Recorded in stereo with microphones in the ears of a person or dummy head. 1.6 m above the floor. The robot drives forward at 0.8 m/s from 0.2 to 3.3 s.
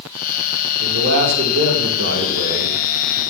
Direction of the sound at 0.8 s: 65° right (ahead or behind).